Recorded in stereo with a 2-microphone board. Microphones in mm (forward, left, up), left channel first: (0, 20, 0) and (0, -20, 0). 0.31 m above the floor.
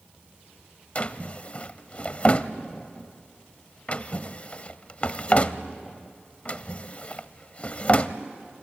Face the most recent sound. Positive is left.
turn(degrees=35)  # may be behind; listen again after turning